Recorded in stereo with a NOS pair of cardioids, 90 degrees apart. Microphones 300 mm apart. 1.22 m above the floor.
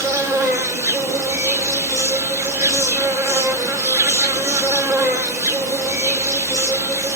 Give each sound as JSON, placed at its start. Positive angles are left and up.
{"t": 0.0, "sound": "an insect", "azimuth_deg": -10, "distance_m": 0.7}